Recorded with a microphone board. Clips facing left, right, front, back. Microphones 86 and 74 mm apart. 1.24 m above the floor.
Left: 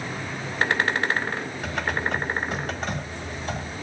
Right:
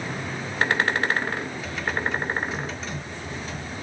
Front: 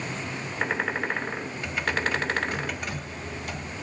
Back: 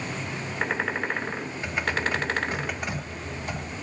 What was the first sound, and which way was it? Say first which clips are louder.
Typing on a keyboard: left 2 dB, even; 120° left.